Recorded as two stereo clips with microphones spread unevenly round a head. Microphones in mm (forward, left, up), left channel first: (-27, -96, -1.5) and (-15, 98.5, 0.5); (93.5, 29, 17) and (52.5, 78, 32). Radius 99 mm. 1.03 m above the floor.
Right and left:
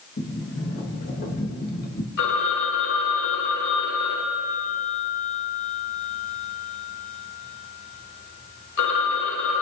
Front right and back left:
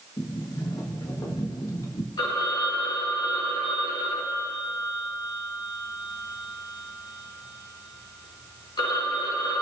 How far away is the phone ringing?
About 2.5 m.